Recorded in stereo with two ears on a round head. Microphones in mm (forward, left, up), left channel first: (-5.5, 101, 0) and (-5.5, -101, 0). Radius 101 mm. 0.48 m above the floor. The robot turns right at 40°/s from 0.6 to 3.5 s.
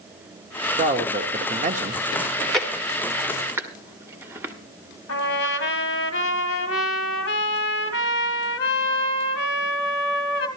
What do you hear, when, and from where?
0.8 s a man speaking: 120° right, 0.9 m; by 2.0 s 70° right, 0.9 m
2.2 s chewing: 5° left (ahead or behind), 1.3 m; by 4.5 s 10° right (ahead or behind), 1.3 m
5.1 s a trumpet: 65° left (ahead or behind), 2.5 m